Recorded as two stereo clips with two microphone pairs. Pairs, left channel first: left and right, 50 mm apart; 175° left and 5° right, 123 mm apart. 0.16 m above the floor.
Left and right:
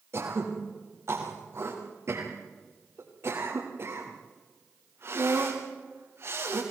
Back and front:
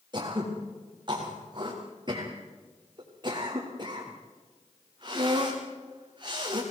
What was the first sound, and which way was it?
Throat clearing, 60° right.